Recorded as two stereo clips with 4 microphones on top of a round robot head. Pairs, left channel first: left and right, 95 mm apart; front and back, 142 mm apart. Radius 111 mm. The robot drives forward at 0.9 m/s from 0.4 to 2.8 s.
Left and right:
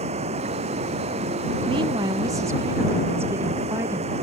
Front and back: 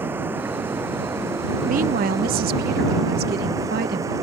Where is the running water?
100° right; by 4.2 s 105° right.